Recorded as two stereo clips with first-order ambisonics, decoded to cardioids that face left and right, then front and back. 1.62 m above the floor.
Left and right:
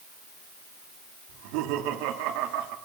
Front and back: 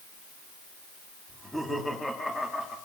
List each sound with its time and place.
1.3 s laughter: 90° right, 4.5 m; by 2.8 s 80° right, 4 m